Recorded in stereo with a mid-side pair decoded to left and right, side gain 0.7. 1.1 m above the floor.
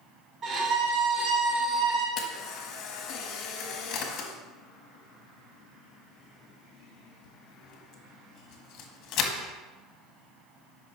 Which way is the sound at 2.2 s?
55° left.